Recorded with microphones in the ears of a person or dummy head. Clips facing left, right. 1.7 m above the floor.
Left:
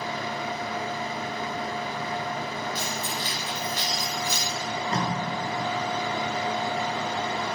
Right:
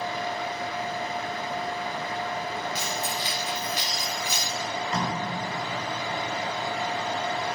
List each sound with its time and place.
0.0 s a fan: 70° left (ahead or behind), 1.2 m
2.8 s keys jangling: 15° right (ahead or behind), 3.5 m
4.6 s tape being pulled: 40° left (ahead or behind), 4.5 m